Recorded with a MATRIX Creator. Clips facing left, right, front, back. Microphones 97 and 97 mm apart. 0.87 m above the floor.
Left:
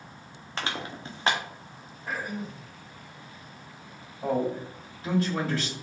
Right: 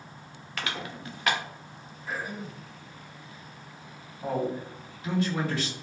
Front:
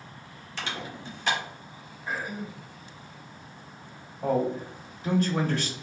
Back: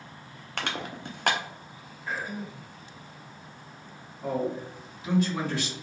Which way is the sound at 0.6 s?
150° left.